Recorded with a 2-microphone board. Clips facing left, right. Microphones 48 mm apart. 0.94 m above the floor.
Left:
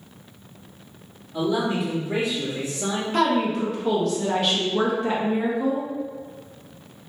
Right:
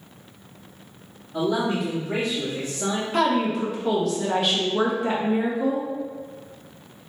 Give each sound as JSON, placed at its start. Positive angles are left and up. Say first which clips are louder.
{"t": 1.3, "sound": "a man speaking", "louder": "even", "side_deg": -45, "distance_m": 1.3}
{"t": 3.1, "sound": "a woman speaking", "louder": "left 1 dB", "side_deg": 0, "distance_m": 0.6}